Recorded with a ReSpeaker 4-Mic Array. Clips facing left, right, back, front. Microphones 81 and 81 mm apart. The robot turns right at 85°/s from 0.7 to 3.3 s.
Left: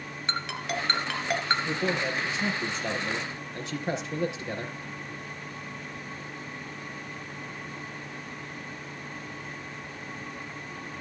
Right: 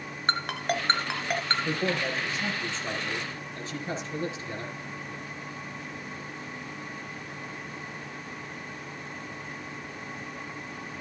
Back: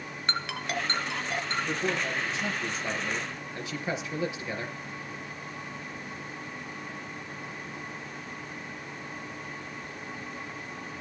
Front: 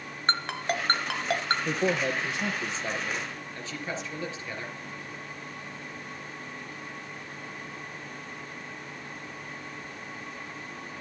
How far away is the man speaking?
About 4 m.